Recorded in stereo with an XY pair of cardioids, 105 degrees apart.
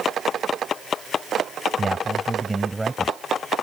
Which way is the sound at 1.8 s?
25° right.